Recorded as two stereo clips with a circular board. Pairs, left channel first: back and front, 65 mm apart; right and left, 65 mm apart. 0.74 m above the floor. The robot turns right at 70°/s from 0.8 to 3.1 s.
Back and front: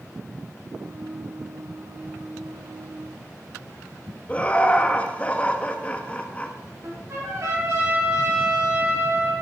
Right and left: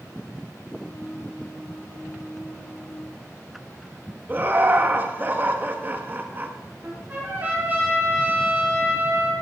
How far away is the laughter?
About 0.7 m.